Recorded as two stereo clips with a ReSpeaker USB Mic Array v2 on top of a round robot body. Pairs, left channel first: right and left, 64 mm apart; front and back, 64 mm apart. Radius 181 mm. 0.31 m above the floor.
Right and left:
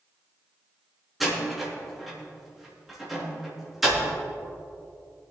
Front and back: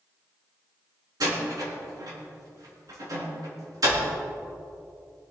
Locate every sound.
1.2 s a door slam: straight behind, 4.5 m